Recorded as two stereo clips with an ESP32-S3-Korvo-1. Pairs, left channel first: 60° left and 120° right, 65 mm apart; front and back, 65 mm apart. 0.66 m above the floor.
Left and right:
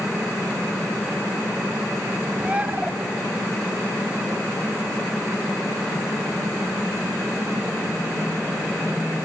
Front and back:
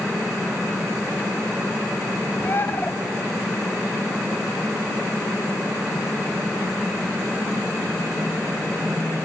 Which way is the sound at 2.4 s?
50° right.